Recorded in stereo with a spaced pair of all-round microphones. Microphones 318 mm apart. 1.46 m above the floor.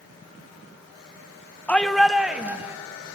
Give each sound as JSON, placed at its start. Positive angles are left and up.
{"t": 1.7, "sound": "a shout", "side_deg": 5, "distance_m": 1.0}